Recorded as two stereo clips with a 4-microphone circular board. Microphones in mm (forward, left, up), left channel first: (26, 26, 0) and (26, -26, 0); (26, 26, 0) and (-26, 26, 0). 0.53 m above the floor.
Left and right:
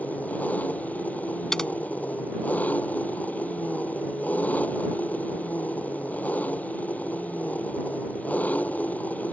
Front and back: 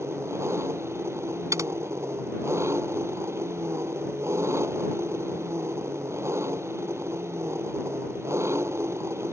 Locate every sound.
0.0 s an engine running: 150° left
1.5 s typing on a keyboard: 170° left